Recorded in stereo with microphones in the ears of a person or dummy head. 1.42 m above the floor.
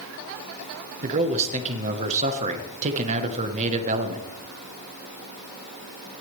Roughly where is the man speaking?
Right.